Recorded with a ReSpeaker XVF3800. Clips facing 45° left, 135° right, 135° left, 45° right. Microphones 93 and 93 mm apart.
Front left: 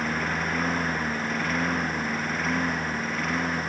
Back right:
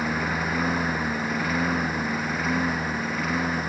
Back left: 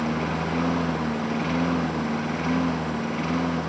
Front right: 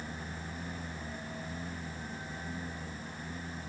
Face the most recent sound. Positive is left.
turn(degrees=140)